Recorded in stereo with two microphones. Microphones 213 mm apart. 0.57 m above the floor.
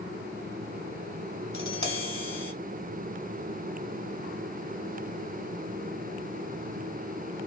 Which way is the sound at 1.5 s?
80° right.